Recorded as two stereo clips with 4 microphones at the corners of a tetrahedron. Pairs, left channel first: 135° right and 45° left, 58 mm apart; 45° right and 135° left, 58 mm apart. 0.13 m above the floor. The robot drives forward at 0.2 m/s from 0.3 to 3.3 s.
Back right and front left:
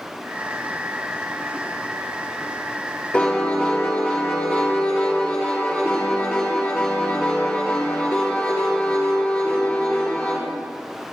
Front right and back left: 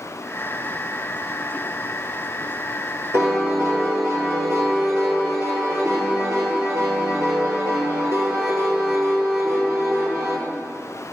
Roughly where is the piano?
Behind left.